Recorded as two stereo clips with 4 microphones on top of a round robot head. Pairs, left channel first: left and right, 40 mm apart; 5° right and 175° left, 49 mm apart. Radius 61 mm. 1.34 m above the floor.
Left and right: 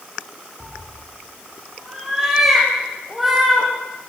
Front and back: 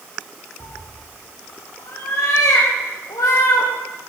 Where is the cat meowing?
5° right, 6.5 m; by 3.7 s straight ahead, 5 m.